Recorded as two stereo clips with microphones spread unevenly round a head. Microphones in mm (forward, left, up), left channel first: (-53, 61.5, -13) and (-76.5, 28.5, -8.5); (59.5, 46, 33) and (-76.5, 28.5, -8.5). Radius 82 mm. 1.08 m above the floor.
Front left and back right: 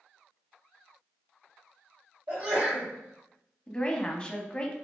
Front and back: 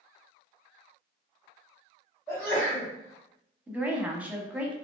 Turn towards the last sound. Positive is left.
turn(degrees=115)